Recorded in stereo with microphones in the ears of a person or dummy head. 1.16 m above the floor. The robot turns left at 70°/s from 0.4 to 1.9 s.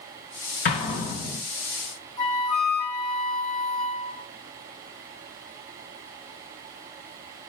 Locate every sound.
0.7 s an explosion: 30° left (ahead or behind), 0.9 m
2.2 s a flute: 50° left (ahead or behind), 1.4 m